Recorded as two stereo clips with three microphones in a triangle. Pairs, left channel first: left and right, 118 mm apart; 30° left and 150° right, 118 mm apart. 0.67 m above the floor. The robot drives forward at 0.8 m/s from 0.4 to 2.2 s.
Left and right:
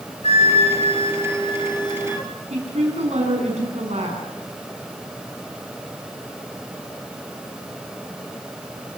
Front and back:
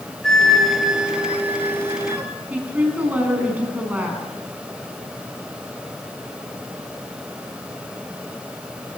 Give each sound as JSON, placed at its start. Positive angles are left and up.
{"t": 0.2, "sound": "a flute", "azimuth_deg": 115, "distance_m": 1.9}
{"t": 2.5, "sound": "a woman speaking", "azimuth_deg": -75, "distance_m": 7.0}